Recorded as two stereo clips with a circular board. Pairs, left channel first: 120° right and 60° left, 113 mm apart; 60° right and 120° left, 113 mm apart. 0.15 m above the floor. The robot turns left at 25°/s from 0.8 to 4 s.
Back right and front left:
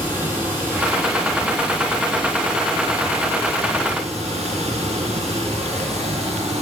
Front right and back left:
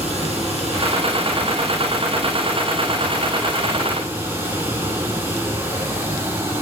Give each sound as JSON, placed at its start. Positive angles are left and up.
{"t": 0.0, "sound": "running water", "azimuth_deg": 135, "distance_m": 4.5}